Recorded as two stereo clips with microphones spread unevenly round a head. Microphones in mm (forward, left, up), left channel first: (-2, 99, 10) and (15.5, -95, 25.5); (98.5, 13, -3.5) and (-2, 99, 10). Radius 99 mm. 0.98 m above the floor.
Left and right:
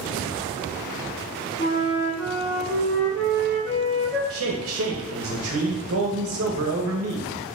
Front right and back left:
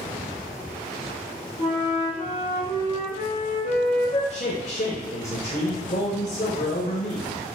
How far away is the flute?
About 1.3 m.